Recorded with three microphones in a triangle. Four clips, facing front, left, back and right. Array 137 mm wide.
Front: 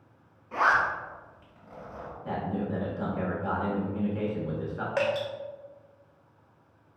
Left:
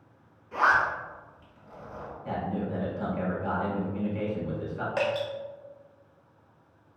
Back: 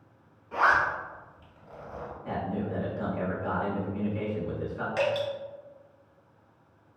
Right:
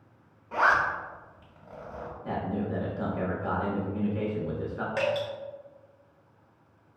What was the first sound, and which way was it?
A zipper, 80° right.